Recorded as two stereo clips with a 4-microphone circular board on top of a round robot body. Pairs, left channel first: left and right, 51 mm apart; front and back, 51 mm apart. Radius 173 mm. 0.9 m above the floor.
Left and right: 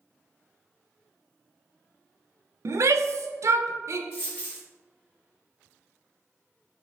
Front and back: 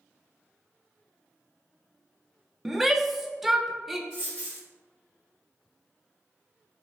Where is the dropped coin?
165° left, 0.6 m.